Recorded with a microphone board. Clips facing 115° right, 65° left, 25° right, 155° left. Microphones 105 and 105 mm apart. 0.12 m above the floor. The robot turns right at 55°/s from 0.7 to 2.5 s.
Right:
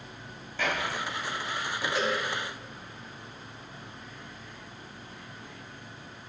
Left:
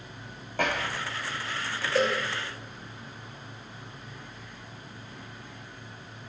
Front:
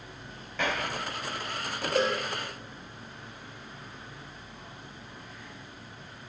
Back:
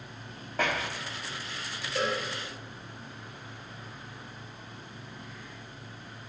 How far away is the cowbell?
About 2.5 m.